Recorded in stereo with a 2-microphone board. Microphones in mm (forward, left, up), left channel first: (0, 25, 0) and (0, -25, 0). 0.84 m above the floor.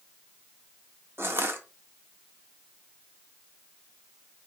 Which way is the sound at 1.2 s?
50° right (ahead or behind).